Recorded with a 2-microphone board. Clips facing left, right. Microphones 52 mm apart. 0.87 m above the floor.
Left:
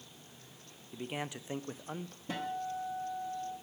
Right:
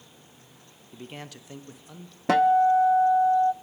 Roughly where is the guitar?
Right.